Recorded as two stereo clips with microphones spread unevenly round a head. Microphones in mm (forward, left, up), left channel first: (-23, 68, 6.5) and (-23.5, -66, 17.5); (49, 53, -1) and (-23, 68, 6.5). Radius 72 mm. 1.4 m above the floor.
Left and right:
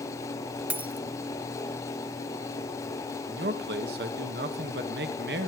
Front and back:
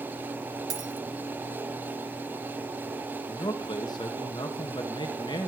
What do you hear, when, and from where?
0.7 s a dropped coin: 165° right, 1.5 m
3.3 s a man speaking: 70° right, 2.0 m